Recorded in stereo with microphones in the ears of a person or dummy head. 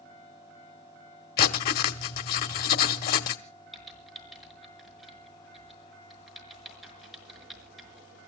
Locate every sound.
1.4 s writing: 45° left (ahead or behind), 1.1 m
3.7 s typing on a keyboard: centre (ahead or behind), 5 m